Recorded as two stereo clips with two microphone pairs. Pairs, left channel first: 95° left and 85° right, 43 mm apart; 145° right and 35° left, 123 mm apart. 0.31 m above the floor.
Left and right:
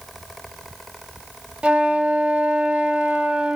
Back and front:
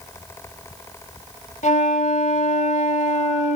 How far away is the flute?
About 0.5 m.